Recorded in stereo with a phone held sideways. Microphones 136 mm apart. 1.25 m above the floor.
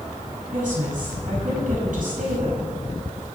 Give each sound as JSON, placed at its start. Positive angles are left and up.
{"t": 0.5, "sound": "a woman speaking", "side_deg": -75, "distance_m": 7.5}